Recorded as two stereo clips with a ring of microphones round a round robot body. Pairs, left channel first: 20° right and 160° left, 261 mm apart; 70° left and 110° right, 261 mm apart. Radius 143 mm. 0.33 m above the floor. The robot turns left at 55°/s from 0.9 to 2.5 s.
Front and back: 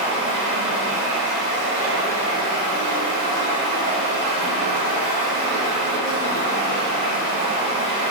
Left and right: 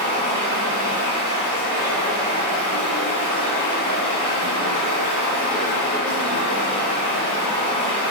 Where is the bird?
No bird in this recording.